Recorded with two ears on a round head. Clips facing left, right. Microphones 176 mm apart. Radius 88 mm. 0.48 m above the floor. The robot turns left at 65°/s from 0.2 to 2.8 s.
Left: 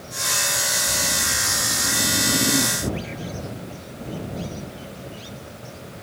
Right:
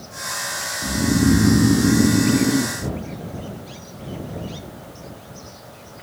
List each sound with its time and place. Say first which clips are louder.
0.8 s snoring: right 13 dB; 45° right; by 2.8 s 175° right